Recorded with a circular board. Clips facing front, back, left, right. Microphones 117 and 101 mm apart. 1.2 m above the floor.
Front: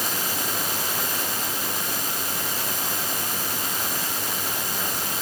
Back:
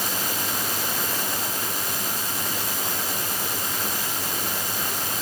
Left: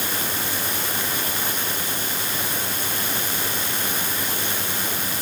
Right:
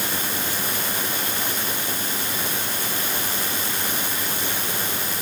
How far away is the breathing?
No breathing in this recording.